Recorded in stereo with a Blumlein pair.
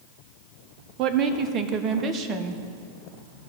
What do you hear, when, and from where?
1.0 s a woman speaking: 30° right, 0.6 m